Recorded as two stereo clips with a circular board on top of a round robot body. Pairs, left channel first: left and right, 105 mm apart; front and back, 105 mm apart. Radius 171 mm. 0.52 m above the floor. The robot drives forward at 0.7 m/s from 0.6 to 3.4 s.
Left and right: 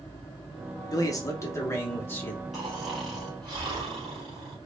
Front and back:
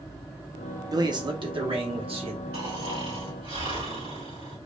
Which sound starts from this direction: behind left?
A man speaking, at 0.9 s.